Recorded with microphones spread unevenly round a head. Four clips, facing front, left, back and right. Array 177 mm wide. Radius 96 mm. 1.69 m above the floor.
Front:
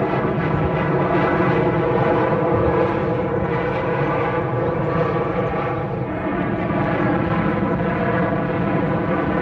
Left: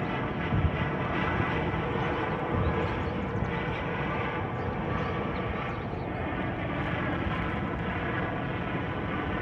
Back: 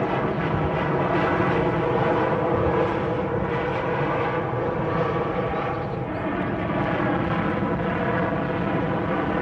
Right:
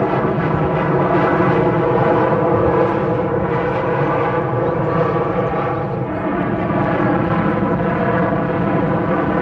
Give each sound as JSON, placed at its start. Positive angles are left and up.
{"t": 0.0, "sound": "an aircraft", "azimuth_deg": -75}